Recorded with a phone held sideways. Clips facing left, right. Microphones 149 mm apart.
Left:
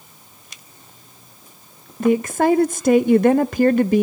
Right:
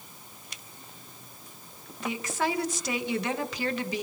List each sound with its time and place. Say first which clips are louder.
2.0 s a woman speaking: left 13 dB; 50° left (ahead or behind), 0.5 m